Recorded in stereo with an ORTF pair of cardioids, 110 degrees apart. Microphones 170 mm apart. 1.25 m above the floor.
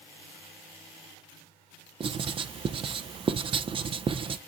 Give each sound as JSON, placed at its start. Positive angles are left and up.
{"t": 2.0, "sound": "writing", "azimuth_deg": -30, "distance_m": 0.6}